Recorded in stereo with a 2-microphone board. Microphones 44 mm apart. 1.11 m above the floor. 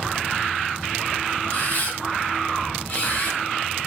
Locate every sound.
1.5 s a camera shutter: 50° left (ahead or behind), 3 m